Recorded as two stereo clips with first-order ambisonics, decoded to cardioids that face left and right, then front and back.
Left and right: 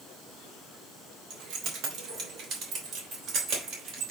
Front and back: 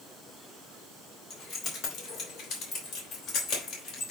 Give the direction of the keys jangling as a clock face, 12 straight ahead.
2 o'clock.